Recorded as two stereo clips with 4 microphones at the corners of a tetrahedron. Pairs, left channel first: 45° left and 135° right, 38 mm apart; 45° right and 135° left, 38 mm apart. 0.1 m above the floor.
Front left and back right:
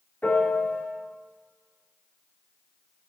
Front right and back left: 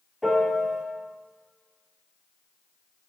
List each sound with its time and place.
0.2 s a piano: 55° left, 1.9 m